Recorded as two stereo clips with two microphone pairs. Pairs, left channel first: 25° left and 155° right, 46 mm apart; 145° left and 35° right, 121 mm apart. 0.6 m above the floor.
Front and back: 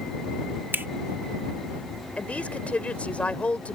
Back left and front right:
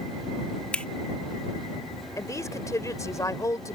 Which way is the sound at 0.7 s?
140° right.